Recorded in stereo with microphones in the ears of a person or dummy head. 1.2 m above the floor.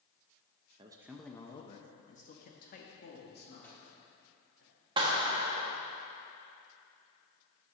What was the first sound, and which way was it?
A man speaking, 25° right (ahead or behind).